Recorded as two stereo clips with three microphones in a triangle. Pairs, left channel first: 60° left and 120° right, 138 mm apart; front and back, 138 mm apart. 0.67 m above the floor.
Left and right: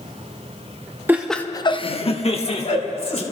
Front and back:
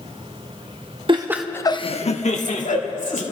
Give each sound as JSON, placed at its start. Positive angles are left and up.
{"t": 1.1, "sound": "laughter", "azimuth_deg": 175, "distance_m": 0.6}